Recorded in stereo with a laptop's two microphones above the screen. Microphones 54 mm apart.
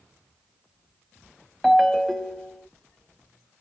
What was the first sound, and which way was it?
A ringtone, centre (ahead or behind).